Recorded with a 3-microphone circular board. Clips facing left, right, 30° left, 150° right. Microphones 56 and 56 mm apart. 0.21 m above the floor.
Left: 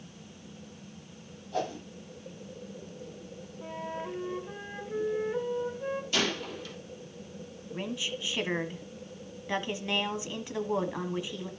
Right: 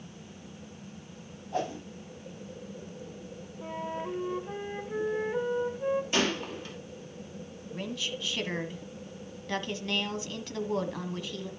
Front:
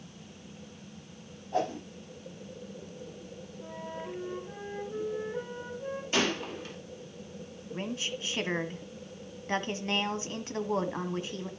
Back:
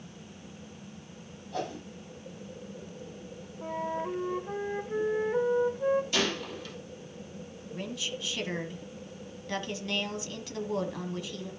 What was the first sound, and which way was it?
A whoosh, 25° right.